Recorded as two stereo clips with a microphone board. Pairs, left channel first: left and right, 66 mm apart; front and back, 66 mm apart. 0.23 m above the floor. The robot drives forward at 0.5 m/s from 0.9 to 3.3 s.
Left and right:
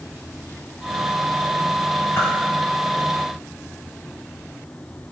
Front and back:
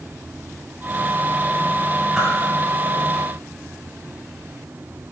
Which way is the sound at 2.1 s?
100° left.